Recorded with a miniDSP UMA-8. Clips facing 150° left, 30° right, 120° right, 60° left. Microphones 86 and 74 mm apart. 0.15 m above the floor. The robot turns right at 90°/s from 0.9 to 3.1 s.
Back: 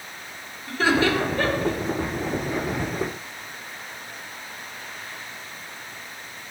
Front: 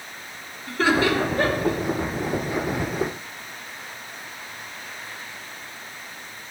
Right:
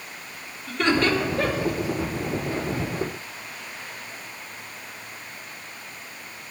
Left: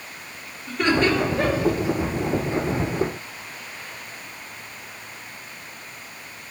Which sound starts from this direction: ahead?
Laughter, at 0.7 s.